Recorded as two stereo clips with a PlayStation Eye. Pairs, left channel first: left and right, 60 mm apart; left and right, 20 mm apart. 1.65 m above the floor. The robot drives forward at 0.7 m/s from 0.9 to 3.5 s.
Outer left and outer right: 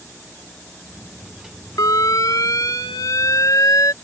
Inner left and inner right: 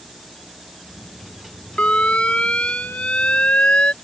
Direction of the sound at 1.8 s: 90° left.